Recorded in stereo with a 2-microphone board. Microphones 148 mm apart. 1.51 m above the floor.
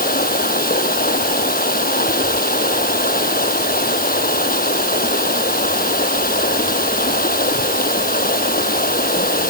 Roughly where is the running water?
Left.